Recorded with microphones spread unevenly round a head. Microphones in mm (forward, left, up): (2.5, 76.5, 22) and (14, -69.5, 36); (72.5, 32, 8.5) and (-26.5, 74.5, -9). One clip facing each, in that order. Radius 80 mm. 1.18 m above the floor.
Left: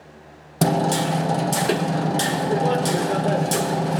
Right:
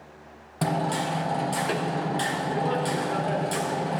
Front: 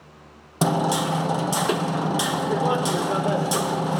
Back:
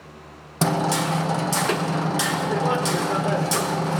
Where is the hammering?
55° left, 0.5 m.